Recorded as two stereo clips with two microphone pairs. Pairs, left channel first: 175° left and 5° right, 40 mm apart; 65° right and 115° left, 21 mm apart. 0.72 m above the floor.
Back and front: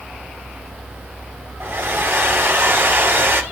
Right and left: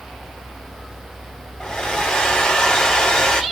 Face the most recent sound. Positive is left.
turn(degrees=-30)